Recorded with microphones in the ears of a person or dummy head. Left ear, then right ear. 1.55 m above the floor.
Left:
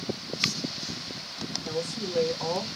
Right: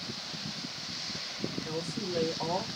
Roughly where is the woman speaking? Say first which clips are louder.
Left 4 dB; centre.